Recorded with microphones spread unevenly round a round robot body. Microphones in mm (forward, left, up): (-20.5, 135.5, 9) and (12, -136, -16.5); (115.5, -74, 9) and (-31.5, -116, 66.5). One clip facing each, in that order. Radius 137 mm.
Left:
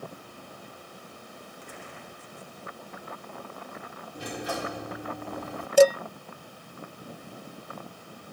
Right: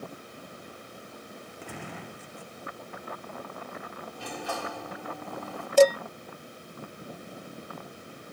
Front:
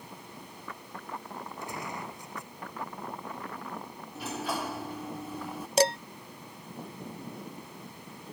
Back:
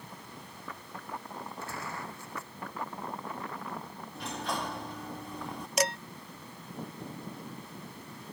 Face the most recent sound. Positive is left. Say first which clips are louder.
# left 1 dB, front 6 dB
turn(degrees=15)